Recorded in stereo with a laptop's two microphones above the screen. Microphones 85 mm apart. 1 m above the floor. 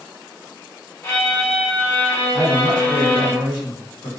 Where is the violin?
35° left (ahead or behind), 1.4 m.